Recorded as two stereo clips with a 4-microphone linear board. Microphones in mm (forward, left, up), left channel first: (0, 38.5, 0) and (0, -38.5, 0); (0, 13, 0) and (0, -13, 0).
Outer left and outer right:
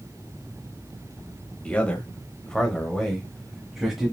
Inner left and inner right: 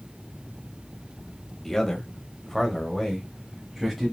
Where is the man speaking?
15° left (ahead or behind), 1.1 m; by 4.1 s 5° right (ahead or behind), 1.4 m.